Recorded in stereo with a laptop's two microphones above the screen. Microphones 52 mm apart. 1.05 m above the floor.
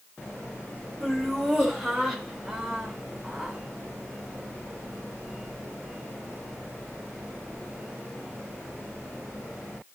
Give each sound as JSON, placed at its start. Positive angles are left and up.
{"t": 1.0, "sound": "laughter", "side_deg": 0, "distance_m": 6.5}